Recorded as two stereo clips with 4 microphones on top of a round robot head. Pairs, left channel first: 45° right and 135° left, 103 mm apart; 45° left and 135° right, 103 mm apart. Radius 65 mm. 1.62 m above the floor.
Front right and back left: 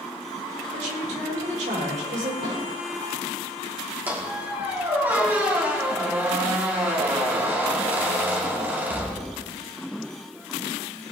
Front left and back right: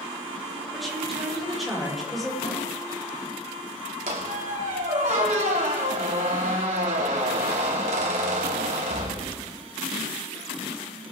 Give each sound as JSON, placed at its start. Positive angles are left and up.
{"t": 0.7, "sound": "a woman speaking", "azimuth_deg": 140, "distance_m": 5.5}
{"t": 2.4, "sound": "a snare drum", "azimuth_deg": 95, "distance_m": 8.0}
{"t": 4.1, "sound": "a squeak", "azimuth_deg": -155, "distance_m": 2.0}